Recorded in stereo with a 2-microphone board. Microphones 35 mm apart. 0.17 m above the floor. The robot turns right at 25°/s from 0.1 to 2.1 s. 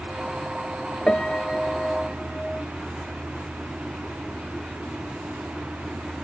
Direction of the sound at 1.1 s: 35° left (ahead or behind).